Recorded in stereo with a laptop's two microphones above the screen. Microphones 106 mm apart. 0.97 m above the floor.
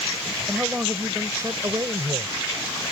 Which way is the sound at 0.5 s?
15° right (ahead or behind).